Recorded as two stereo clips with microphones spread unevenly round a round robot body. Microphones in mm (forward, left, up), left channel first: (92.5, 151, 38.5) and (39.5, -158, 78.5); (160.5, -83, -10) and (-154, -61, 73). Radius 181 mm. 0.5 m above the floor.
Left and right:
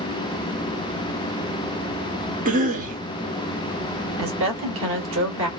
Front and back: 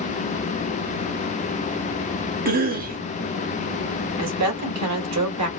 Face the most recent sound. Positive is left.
turn(degrees=-145)